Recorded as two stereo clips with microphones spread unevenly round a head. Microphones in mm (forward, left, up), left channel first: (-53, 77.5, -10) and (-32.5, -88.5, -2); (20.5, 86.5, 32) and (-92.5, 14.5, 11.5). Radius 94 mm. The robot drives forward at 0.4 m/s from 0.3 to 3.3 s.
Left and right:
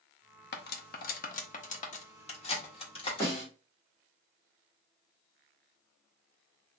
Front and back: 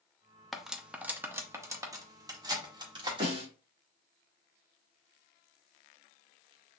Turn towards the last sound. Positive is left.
turn(degrees=170)